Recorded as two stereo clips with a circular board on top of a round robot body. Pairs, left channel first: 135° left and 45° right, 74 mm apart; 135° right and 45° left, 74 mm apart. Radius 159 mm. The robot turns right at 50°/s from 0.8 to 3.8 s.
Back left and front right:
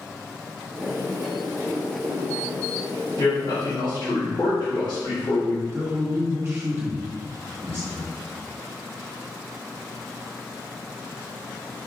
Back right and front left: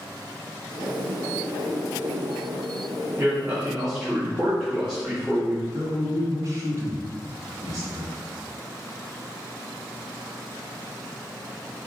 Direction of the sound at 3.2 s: 95° left.